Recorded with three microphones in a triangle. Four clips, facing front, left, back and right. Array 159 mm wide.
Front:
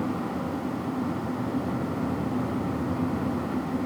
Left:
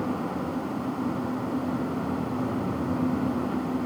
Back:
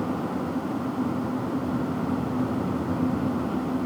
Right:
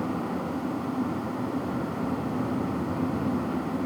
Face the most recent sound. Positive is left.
No sound to turn to.